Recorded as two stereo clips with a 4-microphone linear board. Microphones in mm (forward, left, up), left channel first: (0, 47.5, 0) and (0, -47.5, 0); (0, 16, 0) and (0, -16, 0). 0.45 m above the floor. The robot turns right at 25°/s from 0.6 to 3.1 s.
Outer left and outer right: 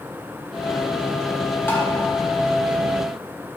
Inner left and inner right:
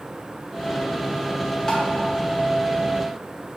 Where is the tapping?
25° left (ahead or behind), 0.6 m.